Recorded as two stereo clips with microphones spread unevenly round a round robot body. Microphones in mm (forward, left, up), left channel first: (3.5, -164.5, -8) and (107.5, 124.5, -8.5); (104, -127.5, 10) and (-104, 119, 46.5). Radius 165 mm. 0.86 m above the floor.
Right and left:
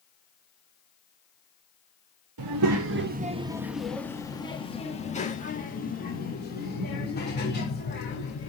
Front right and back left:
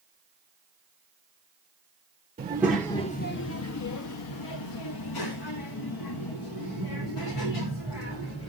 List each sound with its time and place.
2.4 s a child speaking: 55° left, 0.6 m; by 8.5 s 55° right, 3 m